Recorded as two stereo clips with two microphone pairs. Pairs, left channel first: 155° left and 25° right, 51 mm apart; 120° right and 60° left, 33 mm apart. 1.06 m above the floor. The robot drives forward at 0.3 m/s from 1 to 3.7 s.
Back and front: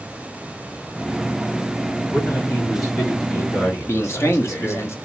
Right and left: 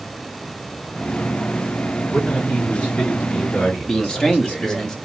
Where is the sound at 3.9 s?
170° left, 0.9 m.